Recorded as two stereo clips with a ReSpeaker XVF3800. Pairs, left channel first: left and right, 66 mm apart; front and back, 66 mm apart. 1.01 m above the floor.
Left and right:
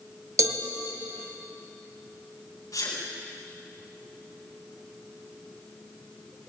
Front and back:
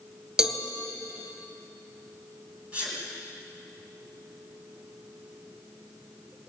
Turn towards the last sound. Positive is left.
turn(degrees=110)